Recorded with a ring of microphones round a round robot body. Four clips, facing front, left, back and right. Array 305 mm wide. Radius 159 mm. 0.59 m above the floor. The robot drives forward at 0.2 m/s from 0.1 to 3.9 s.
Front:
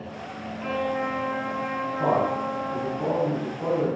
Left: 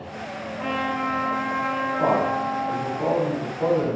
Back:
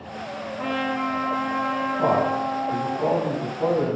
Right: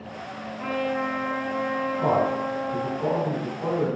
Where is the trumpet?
140° left, 1.2 m; by 3.0 s 155° left, 1.5 m.